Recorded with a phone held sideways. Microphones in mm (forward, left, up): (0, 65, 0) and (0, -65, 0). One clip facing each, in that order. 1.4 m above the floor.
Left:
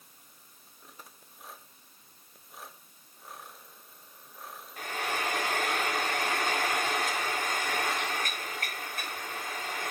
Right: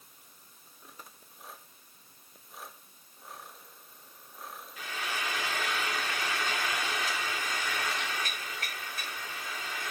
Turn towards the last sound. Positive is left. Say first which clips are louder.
# left 4 dB
turn(degrees=50)  # may be behind; listen again after turning